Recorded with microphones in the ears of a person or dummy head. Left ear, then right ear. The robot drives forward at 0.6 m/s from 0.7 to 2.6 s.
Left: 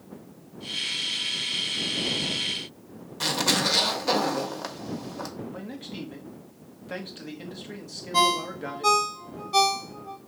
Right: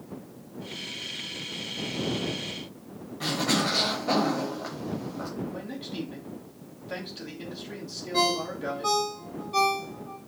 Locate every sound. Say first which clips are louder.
3.2 s a zipper: left 3 dB; 85° left, 1.2 m
5.5 s a man speaking: right 2 dB; 20° left (ahead or behind), 0.9 m
8.1 s a ringtone: left 3 dB; 25° left (ahead or behind), 0.6 m